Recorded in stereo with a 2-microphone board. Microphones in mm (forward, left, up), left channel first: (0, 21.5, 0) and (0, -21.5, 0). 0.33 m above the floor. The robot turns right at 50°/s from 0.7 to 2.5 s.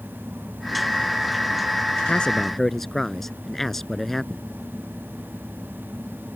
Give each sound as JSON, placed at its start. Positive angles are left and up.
{"t": 2.1, "sound": "a man speaking", "side_deg": 25}